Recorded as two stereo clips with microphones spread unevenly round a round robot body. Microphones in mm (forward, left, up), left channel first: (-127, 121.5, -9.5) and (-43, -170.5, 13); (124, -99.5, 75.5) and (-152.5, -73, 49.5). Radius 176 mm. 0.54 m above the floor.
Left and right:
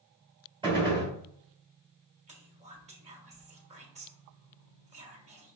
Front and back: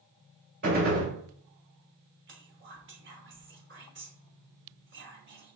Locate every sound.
0.6 s a gunshot: 150° right, 2.5 m
2.3 s whispering: 145° right, 1.5 m